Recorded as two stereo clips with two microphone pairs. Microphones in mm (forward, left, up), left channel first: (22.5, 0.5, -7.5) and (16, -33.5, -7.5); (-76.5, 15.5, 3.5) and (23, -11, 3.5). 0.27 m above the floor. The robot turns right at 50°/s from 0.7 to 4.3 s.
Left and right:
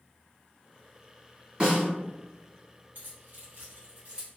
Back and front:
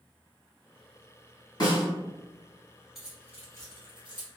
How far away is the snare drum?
About 1.2 m.